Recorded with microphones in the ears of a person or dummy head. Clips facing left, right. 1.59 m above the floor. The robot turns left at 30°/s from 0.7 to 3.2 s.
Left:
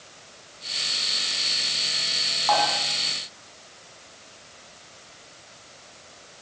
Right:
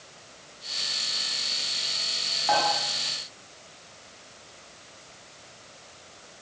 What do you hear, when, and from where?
2.5 s dishes clattering: 10° right (ahead or behind), 9 m; by 2.7 s 15° right (ahead or behind), 9 m